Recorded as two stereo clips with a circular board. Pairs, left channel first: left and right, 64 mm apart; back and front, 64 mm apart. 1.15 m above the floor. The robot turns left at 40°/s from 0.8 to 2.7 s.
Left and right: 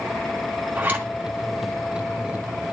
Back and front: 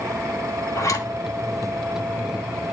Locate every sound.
0.8 s a zipper: 145° right, 2 m; by 1.1 s 155° right, 2 m